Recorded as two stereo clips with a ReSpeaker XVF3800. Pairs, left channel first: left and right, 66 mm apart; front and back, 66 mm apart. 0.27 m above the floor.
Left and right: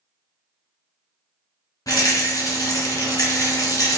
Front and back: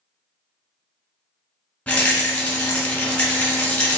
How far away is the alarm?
I don't hear an alarm.